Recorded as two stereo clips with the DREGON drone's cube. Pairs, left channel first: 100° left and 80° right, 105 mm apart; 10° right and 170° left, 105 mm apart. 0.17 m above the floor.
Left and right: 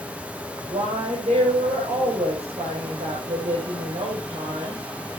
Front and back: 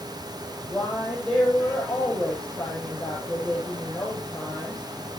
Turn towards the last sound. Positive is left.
turn(degrees=-95)